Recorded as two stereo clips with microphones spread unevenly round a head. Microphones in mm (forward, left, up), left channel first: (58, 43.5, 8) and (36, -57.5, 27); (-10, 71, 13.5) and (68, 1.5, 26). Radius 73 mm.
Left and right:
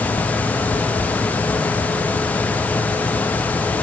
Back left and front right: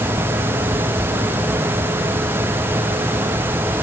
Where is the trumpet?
I don't hear a trumpet.